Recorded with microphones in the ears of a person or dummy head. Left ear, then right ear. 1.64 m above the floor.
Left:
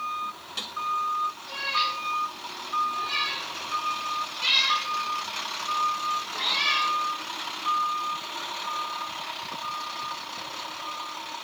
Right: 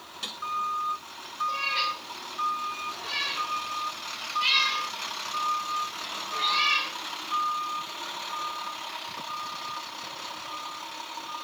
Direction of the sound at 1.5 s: 10° right (ahead or behind).